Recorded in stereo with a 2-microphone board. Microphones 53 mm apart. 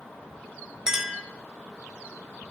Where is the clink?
10° right (ahead or behind), 1.0 m.